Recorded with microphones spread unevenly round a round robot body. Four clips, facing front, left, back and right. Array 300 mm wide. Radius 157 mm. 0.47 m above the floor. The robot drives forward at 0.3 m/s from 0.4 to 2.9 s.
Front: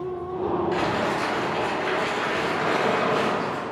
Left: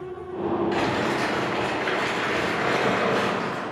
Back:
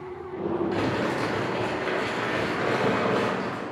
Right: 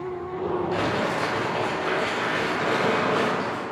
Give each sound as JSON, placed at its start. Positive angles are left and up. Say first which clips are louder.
{"t": 0.7, "sound": "crumpling", "louder": "left 1 dB, front 2 dB", "azimuth_deg": 180, "distance_m": 1.6}